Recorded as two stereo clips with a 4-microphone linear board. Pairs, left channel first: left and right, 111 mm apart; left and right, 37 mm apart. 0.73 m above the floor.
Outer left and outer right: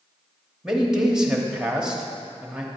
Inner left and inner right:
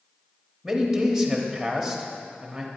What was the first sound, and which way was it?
A man speaking, 5° right (ahead or behind).